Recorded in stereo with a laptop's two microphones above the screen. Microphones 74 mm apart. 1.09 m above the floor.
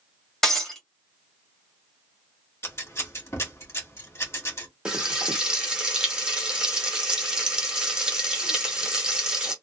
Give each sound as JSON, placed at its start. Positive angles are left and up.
{"t": 0.4, "sound": "breaking glass", "side_deg": 5, "distance_m": 1.1}
{"t": 2.6, "sound": "scissors", "side_deg": 35, "distance_m": 1.1}
{"t": 4.8, "sound": "frying", "side_deg": -15, "distance_m": 1.1}